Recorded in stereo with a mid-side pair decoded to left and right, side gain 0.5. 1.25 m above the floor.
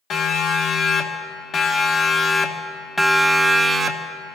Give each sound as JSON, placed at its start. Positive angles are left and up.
{"t": 0.1, "sound": "a siren", "azimuth_deg": 65, "distance_m": 2.5}